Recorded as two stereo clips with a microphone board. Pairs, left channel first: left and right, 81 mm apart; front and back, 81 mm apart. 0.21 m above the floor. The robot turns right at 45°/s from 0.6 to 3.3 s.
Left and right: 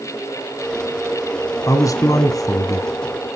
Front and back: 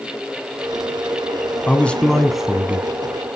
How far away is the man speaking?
About 1.7 m.